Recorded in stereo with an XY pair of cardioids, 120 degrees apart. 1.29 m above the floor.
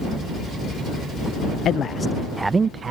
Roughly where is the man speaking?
Ahead left.